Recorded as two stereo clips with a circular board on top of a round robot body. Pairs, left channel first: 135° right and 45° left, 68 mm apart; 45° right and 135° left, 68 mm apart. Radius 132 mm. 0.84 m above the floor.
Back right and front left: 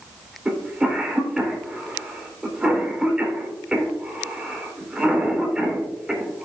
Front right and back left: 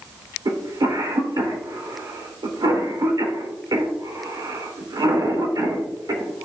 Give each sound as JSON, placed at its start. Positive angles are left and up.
{"t": 0.5, "sound": "a cough", "azimuth_deg": 125, "distance_m": 3.0}